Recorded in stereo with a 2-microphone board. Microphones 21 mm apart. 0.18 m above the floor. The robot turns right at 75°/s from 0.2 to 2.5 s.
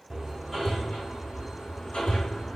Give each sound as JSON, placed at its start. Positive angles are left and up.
{"t": 0.1, "sound": "hammering", "side_deg": -20, "distance_m": 4.5}